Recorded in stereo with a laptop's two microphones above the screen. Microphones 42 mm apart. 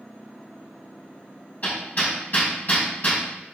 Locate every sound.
1.6 s hammering: 45° left (ahead or behind), 3 m